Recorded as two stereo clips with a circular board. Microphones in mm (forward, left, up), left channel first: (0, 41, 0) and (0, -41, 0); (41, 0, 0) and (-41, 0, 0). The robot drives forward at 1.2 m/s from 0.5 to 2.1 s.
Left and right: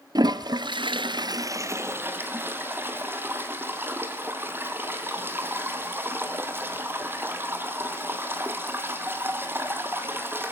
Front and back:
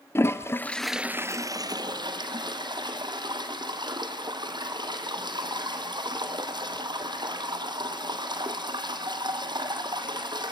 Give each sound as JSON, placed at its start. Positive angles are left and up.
{"t": 0.1, "sound": "a toilet flushing", "azimuth_deg": -60, "distance_m": 0.9}